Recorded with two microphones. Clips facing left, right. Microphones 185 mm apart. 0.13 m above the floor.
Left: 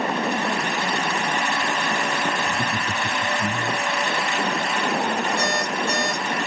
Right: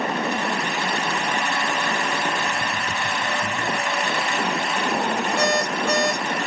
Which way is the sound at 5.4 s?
75° right (ahead or behind).